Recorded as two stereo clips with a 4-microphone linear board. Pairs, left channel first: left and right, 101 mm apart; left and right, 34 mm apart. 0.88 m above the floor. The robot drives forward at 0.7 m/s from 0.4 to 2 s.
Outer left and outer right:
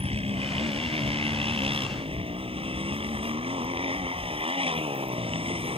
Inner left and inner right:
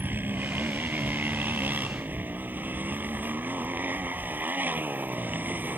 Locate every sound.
0.0 s a motorcycle: 75° right (ahead or behind); by 5.8 s 65° right (ahead or behind)